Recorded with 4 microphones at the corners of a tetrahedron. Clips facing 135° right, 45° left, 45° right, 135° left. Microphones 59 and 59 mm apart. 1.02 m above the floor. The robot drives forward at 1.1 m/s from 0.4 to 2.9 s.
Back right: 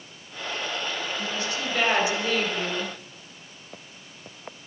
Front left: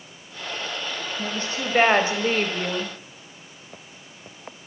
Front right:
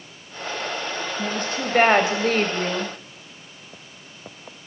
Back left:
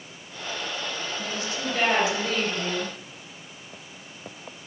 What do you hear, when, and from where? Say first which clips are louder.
1.2 s a woman speaking: front left 1 dB, front right 6 dB; 5° right, 5.5 m; by 2.9 s 10° right, 3.5 m